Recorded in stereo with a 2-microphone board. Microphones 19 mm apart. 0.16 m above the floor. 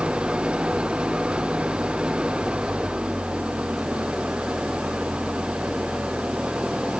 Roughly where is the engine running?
Right.